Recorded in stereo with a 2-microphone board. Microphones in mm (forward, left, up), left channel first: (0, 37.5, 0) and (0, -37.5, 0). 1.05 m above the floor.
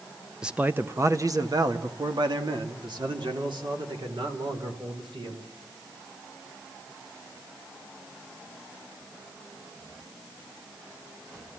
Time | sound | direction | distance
0.4 | a man speaking | 10° right (ahead or behind) | 1.0 m